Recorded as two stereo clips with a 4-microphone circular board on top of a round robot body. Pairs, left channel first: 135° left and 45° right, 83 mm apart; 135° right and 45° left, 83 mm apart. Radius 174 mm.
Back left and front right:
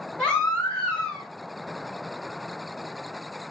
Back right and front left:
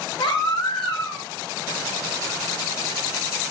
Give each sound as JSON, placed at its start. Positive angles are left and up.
{"t": 0.2, "sound": "a baby crying", "azimuth_deg": -145, "distance_m": 1.9}